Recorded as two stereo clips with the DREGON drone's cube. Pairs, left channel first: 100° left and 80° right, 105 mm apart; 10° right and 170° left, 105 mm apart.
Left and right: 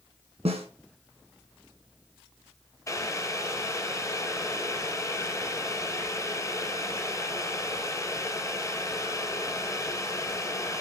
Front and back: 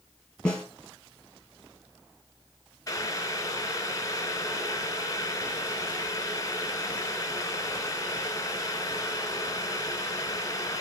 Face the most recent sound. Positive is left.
turn(degrees=40)